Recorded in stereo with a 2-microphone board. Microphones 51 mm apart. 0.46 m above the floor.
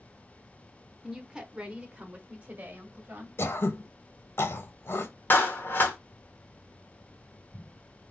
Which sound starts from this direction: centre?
A woman speaking, at 1.0 s.